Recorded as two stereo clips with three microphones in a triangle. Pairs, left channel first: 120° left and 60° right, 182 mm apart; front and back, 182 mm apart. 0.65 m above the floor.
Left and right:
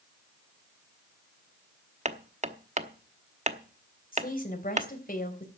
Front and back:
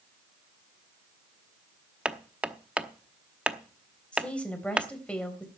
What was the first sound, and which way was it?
Hammering, 95° right.